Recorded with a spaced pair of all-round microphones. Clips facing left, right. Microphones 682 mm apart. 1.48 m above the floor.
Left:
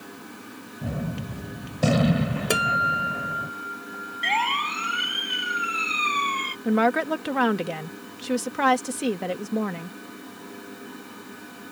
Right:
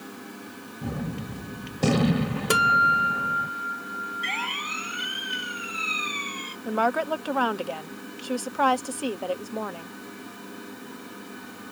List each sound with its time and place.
0.8 s a gunshot: 15° left (ahead or behind)
2.5 s a guitar: 40° right (ahead or behind)
4.2 s a siren: 80° left
6.7 s a woman speaking: 50° left (ahead or behind)